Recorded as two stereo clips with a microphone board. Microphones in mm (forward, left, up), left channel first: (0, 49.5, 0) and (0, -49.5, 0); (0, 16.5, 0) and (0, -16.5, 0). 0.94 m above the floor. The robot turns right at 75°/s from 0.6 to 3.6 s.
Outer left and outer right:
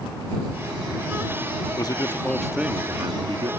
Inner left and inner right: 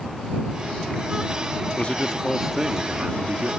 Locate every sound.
1.8 s a man speaking: 125° left; by 3.5 s 100° right